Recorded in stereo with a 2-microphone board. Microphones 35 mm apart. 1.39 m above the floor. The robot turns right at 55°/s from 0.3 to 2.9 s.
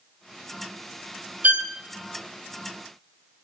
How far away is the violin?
About 0.9 m.